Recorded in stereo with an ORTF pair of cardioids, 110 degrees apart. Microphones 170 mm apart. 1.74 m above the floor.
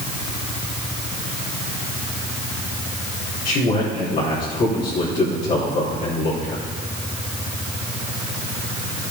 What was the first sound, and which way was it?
A man speaking, 60° left.